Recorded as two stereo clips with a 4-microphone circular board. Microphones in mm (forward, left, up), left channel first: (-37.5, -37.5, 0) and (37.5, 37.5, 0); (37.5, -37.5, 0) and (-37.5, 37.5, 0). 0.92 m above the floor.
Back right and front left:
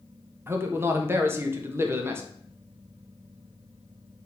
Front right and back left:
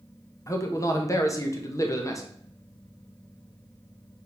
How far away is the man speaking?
About 1.1 m.